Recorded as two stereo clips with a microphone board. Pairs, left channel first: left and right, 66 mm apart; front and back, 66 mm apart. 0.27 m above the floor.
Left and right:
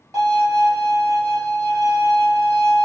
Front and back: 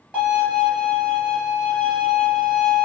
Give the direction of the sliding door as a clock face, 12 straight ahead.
I don't hear a sliding door.